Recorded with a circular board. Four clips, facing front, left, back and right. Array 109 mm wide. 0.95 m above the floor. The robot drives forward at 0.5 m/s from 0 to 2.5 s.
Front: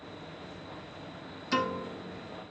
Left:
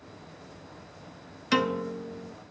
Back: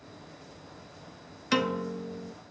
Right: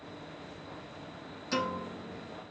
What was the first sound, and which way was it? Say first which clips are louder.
A piano: left 7 dB, back 3 dB; 135° left.